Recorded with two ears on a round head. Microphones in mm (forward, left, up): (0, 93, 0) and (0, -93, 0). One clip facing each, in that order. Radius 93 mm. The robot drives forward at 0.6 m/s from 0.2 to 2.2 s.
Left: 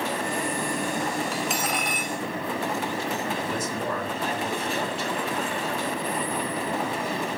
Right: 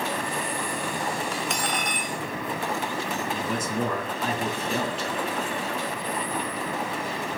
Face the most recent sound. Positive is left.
turn(degrees=-70)  # may be behind; listen again after turning